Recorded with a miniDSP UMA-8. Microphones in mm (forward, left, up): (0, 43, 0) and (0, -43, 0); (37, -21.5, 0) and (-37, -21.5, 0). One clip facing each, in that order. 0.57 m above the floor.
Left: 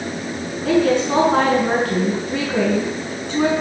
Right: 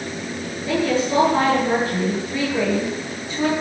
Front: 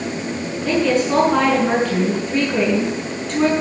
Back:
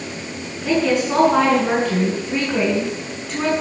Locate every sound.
0.7 s a woman speaking: 95° left, 7 m